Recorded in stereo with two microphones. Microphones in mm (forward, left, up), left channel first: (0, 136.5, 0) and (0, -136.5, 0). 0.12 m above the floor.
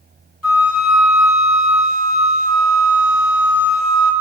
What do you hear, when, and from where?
0.4 s a flute: 70° left (ahead or behind), 0.7 m